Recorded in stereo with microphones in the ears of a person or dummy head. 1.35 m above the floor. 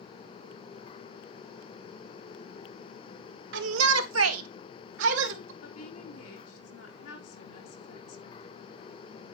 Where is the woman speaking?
80° left, 3.5 m.